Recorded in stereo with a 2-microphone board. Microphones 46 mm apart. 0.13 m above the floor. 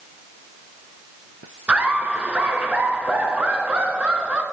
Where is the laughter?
25° right (ahead or behind), 2.0 m.